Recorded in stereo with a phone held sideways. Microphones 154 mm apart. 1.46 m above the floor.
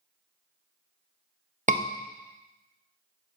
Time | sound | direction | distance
1.7 | a scream | 60° right (ahead or behind) | 1.2 m